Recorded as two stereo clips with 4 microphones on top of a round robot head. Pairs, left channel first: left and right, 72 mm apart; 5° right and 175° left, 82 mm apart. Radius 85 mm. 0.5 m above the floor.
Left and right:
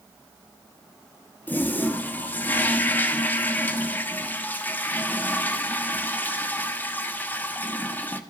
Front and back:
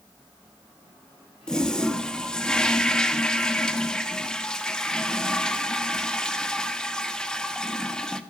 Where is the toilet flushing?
70° left, 1.1 m.